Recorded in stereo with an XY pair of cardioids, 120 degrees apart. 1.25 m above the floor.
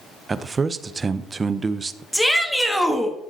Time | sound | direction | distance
0.3 | a man speaking | 25° right | 0.6 m
2.1 | a shout | straight ahead | 1.6 m